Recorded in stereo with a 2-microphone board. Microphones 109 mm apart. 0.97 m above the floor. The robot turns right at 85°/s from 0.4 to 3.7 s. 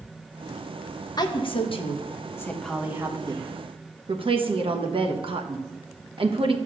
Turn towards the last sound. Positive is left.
turn(degrees=-55)  # may be behind; listen again after turning